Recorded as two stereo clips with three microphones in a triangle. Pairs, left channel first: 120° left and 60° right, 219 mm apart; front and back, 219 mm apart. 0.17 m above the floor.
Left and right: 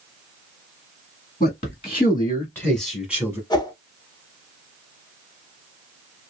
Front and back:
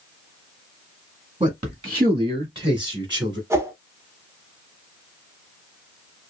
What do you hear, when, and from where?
1.4 s a man speaking: 125° left, 1.2 m; by 3.4 s 130° right, 1.2 m
3.5 s a whoosh: 130° left, 0.7 m